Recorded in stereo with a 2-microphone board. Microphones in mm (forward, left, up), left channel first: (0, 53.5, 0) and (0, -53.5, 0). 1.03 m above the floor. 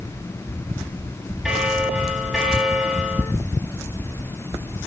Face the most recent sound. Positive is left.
turn(degrees=-5)  # may be behind; listen again after turning